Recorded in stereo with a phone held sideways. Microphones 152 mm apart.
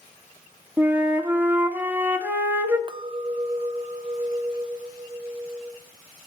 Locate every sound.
0.8 s a flute: 15° right (ahead or behind), 0.9 m
2.9 s a clink: 30° right (ahead or behind), 0.6 m